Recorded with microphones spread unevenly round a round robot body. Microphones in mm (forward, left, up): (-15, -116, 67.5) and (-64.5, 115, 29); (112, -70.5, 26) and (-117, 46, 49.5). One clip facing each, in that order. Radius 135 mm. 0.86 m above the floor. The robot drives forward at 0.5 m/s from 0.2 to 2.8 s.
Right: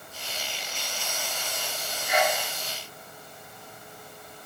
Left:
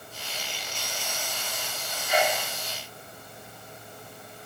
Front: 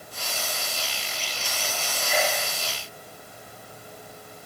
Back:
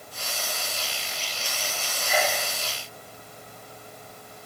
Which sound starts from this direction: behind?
A sneeze, at 2.1 s.